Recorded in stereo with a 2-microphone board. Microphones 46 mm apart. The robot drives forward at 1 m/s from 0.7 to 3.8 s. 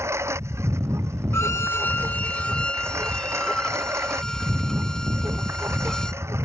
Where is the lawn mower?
85° right; by 6.5 s 80° right.